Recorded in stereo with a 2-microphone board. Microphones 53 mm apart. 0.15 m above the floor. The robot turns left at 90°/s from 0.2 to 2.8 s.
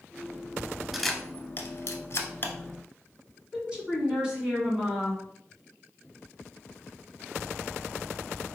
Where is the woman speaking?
15° right (ahead or behind), 1.4 m.